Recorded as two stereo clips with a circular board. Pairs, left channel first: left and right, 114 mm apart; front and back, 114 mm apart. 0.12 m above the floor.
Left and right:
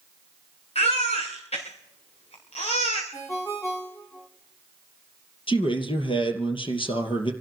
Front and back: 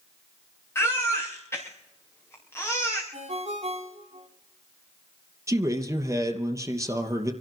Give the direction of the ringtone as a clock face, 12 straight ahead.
7 o'clock.